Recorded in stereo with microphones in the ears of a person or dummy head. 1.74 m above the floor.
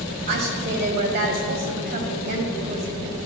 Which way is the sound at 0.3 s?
50° right (ahead or behind).